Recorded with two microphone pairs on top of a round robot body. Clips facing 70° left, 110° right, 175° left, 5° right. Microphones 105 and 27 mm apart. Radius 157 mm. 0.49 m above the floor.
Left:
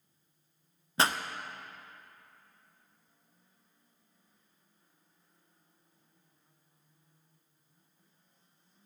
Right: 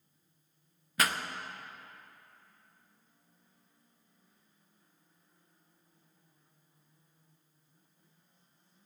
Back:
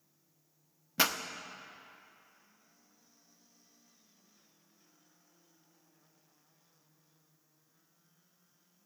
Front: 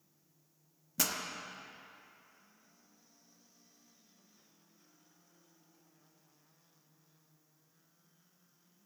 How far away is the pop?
About 0.8 m.